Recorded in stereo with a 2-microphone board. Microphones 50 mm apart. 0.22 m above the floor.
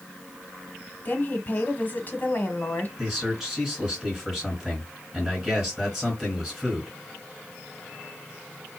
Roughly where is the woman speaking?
Left.